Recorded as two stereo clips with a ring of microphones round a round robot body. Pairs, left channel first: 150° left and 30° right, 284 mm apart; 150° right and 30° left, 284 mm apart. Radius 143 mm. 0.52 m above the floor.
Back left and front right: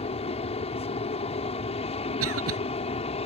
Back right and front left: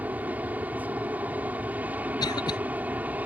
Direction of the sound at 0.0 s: 110° left.